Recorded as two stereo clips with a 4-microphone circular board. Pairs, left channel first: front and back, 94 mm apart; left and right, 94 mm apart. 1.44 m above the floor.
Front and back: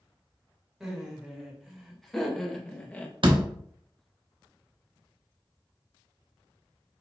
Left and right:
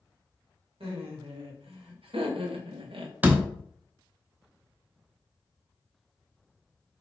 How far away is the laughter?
About 1.9 m.